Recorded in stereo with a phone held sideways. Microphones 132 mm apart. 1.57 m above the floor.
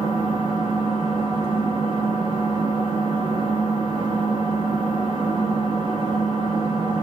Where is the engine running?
35° right (ahead or behind), 1.1 m.